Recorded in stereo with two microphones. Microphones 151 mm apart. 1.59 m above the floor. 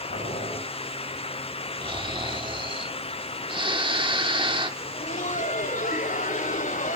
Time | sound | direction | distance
0.1 | boiling | 80° left | 9.5 m
1.8 | snoring | 35° right (ahead or behind) | 1.6 m
4.8 | laughter | 60° left (ahead or behind) | 1.2 m